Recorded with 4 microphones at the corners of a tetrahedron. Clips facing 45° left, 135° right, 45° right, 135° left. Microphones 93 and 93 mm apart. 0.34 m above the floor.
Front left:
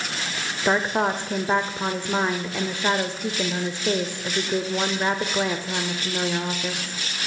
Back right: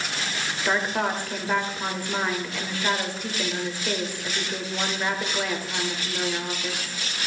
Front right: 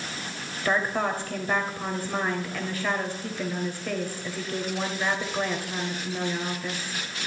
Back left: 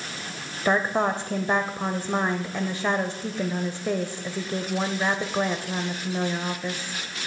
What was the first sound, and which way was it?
A woman speaking, 90° left.